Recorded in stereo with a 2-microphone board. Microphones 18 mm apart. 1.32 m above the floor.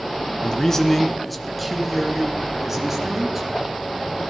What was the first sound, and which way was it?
A man speaking, 40° left (ahead or behind).